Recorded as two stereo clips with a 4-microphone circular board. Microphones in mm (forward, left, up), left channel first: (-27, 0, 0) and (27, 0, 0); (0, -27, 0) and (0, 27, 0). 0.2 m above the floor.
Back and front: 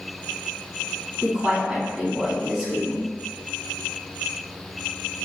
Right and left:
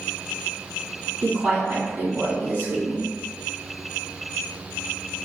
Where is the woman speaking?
40° left, 1.4 m; by 3.0 s 105° left, 1.6 m.